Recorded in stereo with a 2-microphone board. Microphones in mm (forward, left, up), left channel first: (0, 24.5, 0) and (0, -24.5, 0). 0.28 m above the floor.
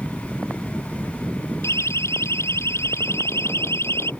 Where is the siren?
70° left (ahead or behind); by 4.1 s 60° left (ahead or behind).